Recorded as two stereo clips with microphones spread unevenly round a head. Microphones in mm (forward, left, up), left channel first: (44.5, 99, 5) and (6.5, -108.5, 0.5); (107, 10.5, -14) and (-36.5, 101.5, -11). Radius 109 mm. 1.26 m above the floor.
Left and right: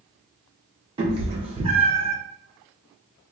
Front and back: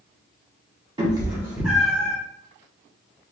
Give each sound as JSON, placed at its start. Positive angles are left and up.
{"t": 1.0, "sound": "a cat meowing", "azimuth_deg": -160, "distance_m": 0.9}